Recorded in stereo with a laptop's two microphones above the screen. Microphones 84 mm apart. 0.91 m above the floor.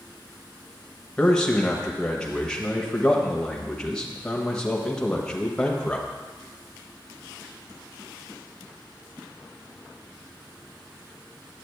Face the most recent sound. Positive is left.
turn(degrees=10)  # may be behind; listen again after turning